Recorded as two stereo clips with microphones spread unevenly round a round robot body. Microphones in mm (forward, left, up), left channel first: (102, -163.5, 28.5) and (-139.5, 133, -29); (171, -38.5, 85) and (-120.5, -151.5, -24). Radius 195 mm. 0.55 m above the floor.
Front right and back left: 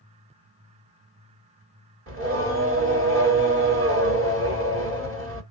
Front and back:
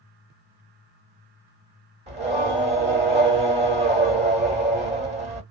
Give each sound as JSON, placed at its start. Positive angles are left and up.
{"t": 2.1, "sound": "singing", "azimuth_deg": 165, "distance_m": 1.8}